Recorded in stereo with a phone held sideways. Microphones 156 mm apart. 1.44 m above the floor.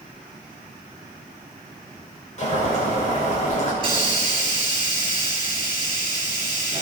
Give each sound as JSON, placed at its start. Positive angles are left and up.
{"t": 2.4, "sound": "boiling", "side_deg": 50, "distance_m": 7.5}
{"t": 3.8, "sound": "a hiss", "side_deg": -35, "distance_m": 5.0}